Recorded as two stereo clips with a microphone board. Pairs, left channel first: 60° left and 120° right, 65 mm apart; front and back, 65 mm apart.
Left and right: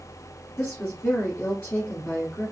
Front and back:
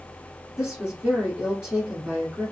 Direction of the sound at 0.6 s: 110° left.